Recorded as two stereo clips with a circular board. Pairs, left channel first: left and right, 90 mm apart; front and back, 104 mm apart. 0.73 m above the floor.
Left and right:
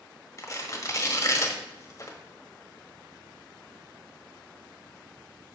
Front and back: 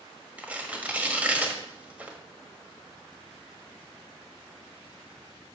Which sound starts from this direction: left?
Tearing paper, at 0.4 s.